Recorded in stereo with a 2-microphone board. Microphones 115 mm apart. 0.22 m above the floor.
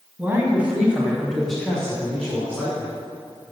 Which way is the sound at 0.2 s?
15° right (ahead or behind).